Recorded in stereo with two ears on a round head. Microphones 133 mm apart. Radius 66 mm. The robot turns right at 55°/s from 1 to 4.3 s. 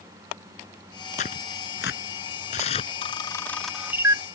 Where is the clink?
No clink in this recording.